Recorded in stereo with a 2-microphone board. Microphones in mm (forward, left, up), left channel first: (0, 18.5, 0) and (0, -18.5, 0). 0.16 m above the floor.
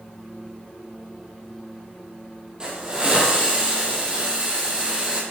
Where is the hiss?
20° right (ahead or behind), 3.5 m.